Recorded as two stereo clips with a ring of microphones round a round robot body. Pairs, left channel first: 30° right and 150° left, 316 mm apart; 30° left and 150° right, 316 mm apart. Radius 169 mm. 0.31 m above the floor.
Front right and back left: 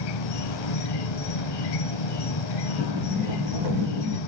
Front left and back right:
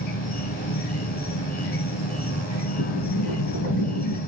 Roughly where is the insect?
Ahead right.